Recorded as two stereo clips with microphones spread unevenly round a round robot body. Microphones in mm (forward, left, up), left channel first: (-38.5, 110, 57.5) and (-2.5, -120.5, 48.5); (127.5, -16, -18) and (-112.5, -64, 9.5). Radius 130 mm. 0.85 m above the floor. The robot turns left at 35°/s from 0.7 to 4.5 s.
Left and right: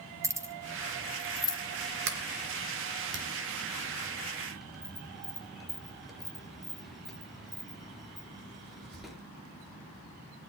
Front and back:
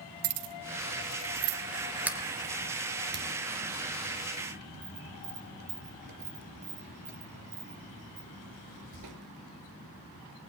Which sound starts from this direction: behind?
Keys jangling, at 0.2 s.